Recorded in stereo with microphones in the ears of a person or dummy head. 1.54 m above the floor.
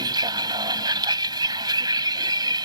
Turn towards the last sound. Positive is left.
turn(degrees=-25)  # may be behind; listen again after turning